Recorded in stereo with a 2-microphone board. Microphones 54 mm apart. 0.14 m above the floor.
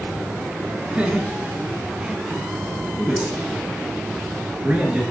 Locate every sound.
0.9 s laughter: 20° right (ahead or behind), 1.2 m
3.0 s a man speaking: 20° right (ahead or behind), 2 m